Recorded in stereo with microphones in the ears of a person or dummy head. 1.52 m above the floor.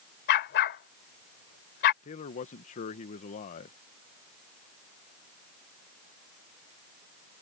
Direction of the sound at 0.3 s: 45° left (ahead or behind).